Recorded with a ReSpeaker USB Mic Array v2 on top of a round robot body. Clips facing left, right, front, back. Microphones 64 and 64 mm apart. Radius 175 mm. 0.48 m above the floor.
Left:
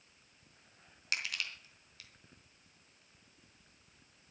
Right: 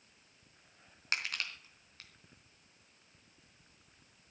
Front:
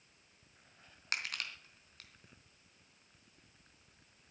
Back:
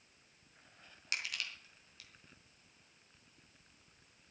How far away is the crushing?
About 3.5 m.